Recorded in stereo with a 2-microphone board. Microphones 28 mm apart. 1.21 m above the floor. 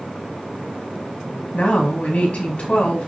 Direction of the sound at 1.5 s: 55° left (ahead or behind).